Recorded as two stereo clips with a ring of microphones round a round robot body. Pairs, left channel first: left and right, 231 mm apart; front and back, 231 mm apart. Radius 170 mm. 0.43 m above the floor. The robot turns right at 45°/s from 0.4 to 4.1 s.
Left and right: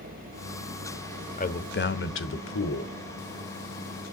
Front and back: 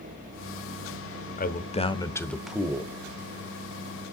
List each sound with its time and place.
1.4 s a man speaking: 40° left, 1.3 m; by 2.9 s 110° left, 1.3 m